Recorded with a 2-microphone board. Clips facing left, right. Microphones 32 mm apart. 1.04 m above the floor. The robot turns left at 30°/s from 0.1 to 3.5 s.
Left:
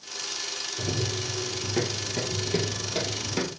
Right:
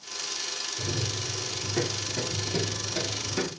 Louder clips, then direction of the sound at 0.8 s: Left 4 dB; 45° left (ahead or behind).